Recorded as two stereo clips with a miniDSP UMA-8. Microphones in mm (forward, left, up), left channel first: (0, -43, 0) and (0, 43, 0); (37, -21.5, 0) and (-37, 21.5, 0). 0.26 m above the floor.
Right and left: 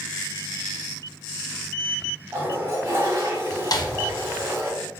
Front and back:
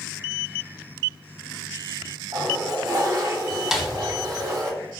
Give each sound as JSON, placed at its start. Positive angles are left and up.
{"t": 2.3, "sound": "a toilet flushing", "azimuth_deg": 140, "distance_m": 0.9}
{"t": 3.7, "sound": "a snare drum", "azimuth_deg": -125, "distance_m": 0.5}